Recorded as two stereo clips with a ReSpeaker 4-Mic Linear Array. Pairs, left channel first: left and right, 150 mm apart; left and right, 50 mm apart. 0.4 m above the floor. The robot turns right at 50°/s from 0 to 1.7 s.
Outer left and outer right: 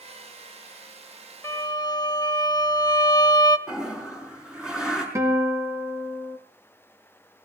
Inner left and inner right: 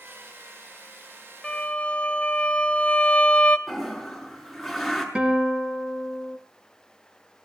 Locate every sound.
1.4 s a violin: 20° left (ahead or behind), 2 m; by 3.6 s 30° left (ahead or behind), 2 m
3.7 s a toilet flushing: 5° right (ahead or behind), 6 m
5.2 s a guitar: 20° right (ahead or behind), 3.5 m